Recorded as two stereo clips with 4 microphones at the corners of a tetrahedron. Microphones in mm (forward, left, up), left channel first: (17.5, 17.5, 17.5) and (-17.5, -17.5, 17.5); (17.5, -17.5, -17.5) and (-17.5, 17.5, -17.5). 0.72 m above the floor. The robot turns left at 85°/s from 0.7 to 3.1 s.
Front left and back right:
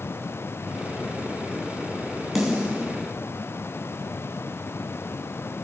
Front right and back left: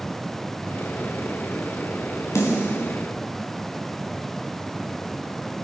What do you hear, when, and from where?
2.4 s a snare drum: 45° right, 3 m; by 2.9 s 90° right, 3 m